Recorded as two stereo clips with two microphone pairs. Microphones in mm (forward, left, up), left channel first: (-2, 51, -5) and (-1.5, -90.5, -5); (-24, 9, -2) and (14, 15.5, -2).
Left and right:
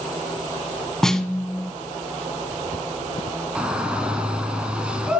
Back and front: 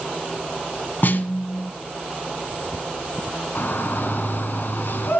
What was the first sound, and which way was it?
A snare drum, 175° left.